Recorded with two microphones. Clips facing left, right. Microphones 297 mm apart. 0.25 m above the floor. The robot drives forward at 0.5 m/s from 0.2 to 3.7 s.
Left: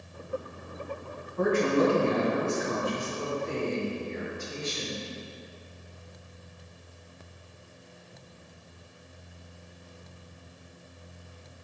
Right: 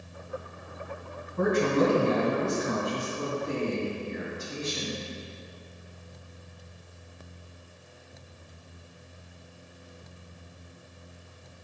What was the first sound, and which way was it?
A woman speaking, 50° right (ahead or behind).